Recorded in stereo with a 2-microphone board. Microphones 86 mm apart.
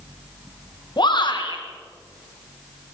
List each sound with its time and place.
1.0 s a shout: 55° left (ahead or behind), 3.5 m